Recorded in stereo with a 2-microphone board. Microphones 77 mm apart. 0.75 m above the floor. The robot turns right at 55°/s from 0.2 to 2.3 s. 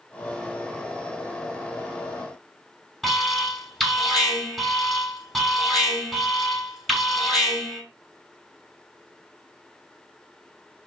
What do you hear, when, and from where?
3.0 s an alarm: 5° left (ahead or behind), 7 m